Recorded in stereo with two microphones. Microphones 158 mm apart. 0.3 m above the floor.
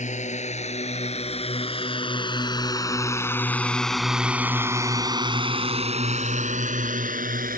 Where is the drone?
50° left (ahead or behind); by 7.6 s 65° right (ahead or behind).